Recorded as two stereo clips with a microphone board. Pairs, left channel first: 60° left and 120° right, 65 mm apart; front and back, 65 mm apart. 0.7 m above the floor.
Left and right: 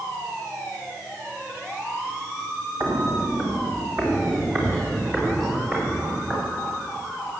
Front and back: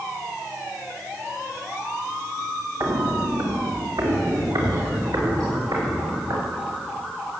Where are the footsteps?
160° right, 2.5 m; by 6.4 s 170° left, 7 m.